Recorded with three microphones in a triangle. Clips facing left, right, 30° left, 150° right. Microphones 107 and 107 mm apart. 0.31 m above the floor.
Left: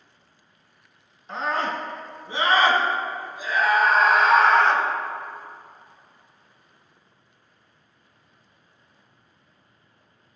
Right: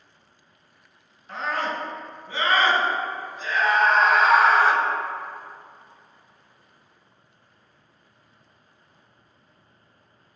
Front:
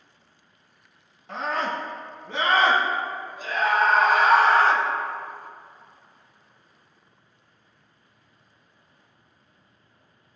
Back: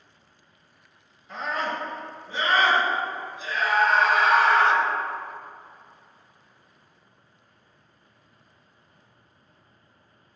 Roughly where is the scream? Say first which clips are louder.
Left 2 dB, front 2 dB; ahead left.